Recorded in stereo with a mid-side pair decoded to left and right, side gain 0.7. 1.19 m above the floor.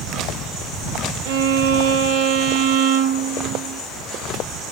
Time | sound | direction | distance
1.2 | a violin | 65° right | 1.2 m